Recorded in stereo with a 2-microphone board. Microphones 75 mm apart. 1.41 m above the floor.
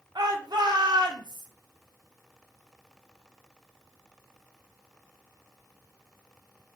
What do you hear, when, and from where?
0.1 s a shout: 65° right (ahead or behind), 0.7 m